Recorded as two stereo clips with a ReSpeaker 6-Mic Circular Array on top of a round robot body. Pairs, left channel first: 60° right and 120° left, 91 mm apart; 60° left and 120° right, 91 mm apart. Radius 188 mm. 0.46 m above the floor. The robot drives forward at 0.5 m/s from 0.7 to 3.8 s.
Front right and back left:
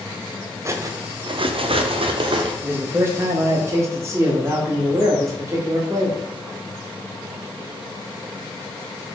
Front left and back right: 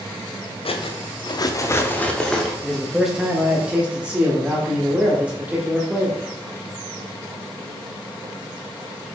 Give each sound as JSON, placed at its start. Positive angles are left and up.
{"t": 0.7, "sound": "cutlery clinking", "azimuth_deg": 60, "distance_m": 0.6}
{"t": 2.6, "sound": "a man speaking", "azimuth_deg": 135, "distance_m": 0.9}